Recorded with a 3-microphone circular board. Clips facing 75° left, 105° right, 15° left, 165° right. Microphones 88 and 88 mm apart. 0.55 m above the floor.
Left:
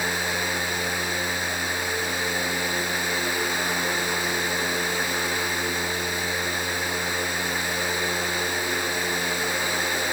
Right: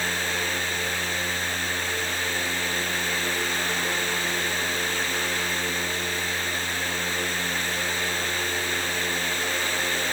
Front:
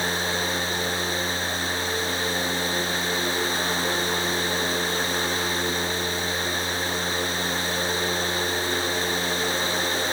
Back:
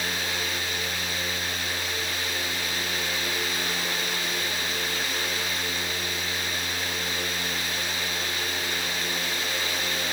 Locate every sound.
Only background noise.